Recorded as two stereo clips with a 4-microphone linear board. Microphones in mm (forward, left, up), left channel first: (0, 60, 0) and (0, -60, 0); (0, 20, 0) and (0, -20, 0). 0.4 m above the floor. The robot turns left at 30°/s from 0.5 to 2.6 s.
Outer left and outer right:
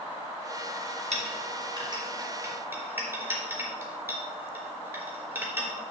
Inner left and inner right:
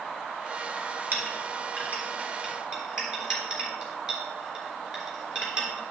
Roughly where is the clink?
Right.